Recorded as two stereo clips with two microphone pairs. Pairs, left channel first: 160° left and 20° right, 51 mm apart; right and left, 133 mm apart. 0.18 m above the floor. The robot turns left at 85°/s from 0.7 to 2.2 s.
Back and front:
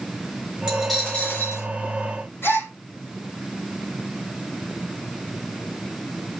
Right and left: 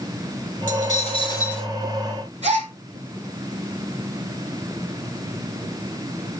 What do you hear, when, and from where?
0.7 s a dropped coin: 95° right, 8 m; by 1.7 s straight behind, 8 m
2.4 s a gasp: 120° left, 4.5 m